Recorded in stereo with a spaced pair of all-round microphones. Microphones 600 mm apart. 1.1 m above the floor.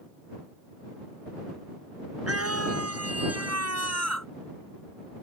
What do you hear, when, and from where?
2.3 s a scream: 25° right (ahead or behind)